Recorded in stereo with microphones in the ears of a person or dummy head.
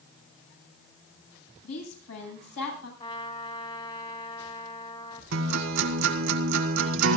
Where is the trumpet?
25° left (ahead or behind), 3 m.